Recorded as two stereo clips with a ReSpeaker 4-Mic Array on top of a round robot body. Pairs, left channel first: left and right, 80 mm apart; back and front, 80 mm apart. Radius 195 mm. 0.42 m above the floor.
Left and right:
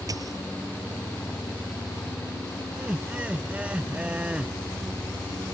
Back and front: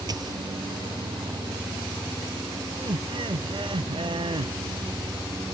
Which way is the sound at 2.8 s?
15° right.